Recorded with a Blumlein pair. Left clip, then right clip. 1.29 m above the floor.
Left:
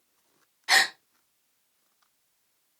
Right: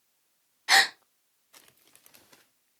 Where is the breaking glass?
I don't hear breaking glass.